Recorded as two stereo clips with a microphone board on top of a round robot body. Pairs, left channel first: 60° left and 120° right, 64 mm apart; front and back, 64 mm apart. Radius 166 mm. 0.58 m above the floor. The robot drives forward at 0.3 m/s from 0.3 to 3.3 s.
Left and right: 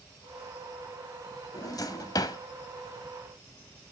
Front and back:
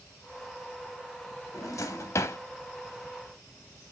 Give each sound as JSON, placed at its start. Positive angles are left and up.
{"t": 1.5, "sound": "a drawer", "azimuth_deg": 35, "distance_m": 0.9}